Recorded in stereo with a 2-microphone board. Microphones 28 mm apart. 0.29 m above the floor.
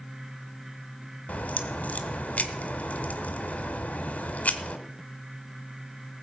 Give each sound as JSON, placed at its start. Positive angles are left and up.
{"t": 1.3, "sound": "a crack", "side_deg": 55, "distance_m": 1.4}